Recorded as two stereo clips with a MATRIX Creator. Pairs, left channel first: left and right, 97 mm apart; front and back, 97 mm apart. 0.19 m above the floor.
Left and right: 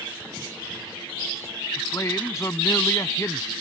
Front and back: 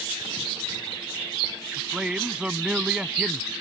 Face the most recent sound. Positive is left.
turn(degrees=105)